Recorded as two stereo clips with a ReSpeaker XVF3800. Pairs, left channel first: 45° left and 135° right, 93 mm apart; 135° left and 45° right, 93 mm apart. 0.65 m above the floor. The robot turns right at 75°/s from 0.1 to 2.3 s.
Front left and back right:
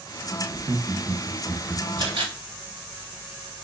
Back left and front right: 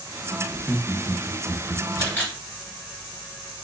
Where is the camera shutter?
170° right, 1.9 m; by 3.6 s 145° right, 1.9 m.